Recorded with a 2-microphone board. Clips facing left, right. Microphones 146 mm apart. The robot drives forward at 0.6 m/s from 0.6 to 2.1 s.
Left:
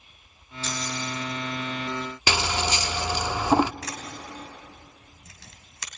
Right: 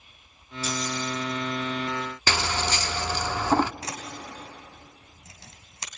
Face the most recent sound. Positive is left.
turn(degrees=-25)  # may be behind; listen again after turning